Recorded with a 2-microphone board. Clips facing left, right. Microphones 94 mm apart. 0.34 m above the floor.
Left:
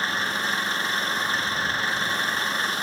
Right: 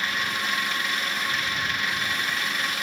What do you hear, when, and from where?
0.0 s an engine running: 35° left (ahead or behind)